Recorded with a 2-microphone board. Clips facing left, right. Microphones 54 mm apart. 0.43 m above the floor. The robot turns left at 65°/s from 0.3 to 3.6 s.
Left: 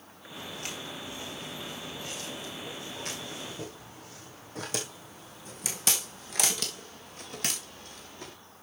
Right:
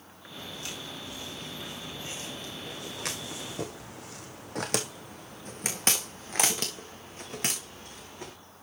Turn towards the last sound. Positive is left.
turn(degrees=-20)  # may be behind; listen again after turning